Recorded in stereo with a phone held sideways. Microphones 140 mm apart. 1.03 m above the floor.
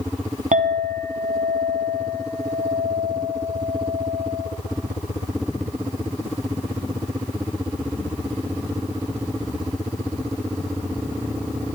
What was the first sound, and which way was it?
A clink, 60° right (ahead or behind).